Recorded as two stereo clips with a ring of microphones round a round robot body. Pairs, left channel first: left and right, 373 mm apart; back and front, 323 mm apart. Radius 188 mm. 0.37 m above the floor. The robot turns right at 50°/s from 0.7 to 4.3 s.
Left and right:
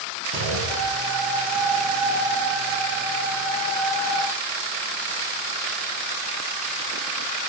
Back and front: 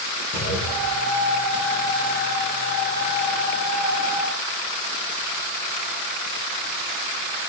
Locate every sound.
0.3 s a clunk: 115° right, 8 m; by 1.6 s 70° right, 8 m